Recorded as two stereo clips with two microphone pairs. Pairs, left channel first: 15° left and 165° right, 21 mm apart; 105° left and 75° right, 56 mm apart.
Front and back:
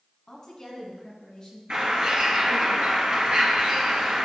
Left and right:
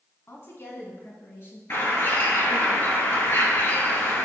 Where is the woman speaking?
75° left, 1.8 m; by 1.6 s 70° left, 3.5 m.